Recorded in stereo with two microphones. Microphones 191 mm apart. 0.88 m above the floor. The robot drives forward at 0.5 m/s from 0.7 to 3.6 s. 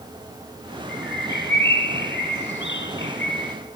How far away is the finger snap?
No finger snap in this recording.